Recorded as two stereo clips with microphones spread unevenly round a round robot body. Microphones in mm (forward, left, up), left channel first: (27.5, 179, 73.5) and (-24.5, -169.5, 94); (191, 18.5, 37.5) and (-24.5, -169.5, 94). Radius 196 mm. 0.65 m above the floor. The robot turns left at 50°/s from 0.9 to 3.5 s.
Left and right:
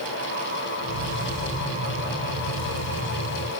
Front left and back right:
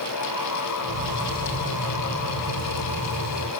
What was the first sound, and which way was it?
Only background noise.